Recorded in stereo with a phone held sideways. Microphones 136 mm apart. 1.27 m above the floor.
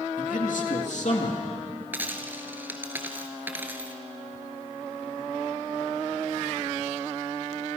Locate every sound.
0.2 s a man speaking: 75° left (ahead or behind), 2.5 m; by 1.4 s 55° left (ahead or behind), 2.5 m
1.9 s a dropped coin: 15° right (ahead or behind), 2 m